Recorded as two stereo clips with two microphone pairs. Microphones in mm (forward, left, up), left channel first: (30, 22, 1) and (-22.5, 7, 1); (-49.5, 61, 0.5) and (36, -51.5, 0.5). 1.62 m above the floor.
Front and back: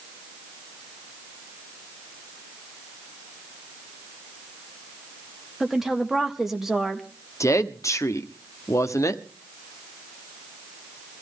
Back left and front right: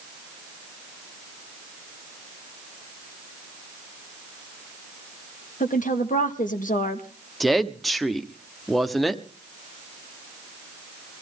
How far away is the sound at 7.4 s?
About 1.0 m.